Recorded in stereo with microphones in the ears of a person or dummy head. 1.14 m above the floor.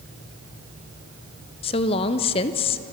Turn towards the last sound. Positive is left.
turn(degrees=30)  # may be behind; listen again after turning